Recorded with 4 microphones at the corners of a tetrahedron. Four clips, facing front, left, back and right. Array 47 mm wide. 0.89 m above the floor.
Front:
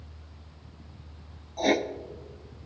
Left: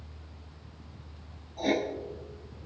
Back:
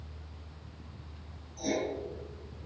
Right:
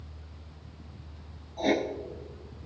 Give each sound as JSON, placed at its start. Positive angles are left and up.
{"t": 1.6, "sound": "writing", "azimuth_deg": -10, "distance_m": 1.0}